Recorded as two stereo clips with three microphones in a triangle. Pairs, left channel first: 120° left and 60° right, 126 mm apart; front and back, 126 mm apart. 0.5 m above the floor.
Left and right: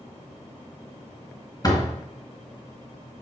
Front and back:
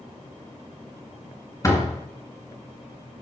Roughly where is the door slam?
Ahead left.